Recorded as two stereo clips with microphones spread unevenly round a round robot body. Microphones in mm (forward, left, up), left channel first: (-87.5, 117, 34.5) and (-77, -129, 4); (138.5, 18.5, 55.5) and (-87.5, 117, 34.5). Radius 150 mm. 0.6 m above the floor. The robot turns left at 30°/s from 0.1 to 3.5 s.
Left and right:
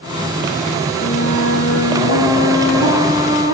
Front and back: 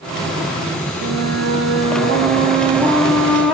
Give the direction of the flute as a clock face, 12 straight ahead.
7 o'clock.